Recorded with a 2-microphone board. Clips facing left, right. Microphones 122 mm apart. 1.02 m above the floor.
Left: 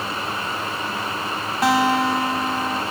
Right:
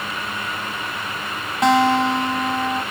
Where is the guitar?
5° left (ahead or behind), 1.3 m.